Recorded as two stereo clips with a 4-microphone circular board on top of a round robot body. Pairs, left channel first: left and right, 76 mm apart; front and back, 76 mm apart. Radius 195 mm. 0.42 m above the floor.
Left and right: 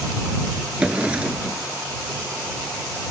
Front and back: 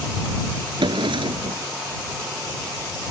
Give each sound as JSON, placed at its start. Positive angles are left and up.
{"t": 0.8, "sound": "a drawer", "azimuth_deg": -165}